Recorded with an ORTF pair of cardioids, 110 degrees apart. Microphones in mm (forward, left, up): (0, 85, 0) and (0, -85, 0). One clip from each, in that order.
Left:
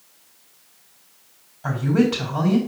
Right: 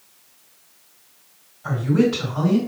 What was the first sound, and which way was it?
A woman speaking, 60° left.